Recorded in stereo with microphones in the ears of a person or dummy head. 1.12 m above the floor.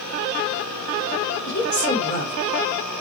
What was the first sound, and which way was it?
A woman speaking, 60° left (ahead or behind).